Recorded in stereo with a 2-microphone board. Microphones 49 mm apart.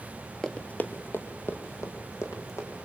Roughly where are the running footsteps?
Centre.